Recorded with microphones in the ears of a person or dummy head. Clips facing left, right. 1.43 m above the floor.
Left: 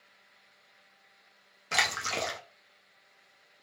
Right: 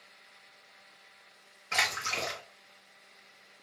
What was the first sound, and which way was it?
A splash, 50° left (ahead or behind).